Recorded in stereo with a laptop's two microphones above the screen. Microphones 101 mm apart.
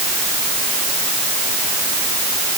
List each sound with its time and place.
Only background noise.